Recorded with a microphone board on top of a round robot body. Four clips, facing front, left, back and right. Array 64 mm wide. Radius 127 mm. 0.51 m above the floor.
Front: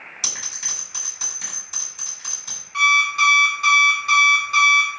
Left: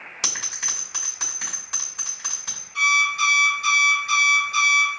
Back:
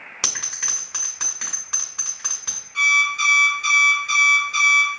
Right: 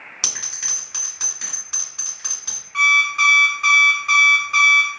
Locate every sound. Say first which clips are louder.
0.2 s a bell: left 3 dB, back 6 dB; straight behind, 1.9 m
2.7 s an alarm clock: right 4 dB, front 2 dB; 60° right, 1.1 m